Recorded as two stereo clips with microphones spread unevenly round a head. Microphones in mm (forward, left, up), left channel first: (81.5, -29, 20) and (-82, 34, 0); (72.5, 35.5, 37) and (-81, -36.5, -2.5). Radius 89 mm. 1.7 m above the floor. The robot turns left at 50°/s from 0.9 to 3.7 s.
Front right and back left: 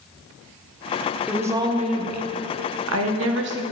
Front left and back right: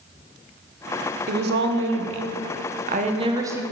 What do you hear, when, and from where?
1.3 s a woman speaking: 115° right, 0.9 m; by 3.6 s 125° left, 0.9 m